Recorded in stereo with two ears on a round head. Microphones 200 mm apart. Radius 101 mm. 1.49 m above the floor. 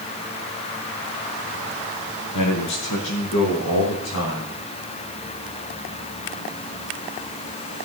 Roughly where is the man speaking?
Left.